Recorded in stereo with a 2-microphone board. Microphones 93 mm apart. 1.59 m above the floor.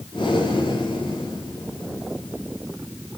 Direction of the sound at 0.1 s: 85° left.